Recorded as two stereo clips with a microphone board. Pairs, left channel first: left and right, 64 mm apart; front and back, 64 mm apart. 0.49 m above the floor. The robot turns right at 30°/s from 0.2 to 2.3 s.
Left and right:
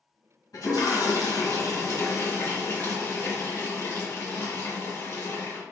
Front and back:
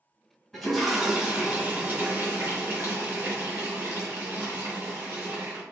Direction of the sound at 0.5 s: 80° left.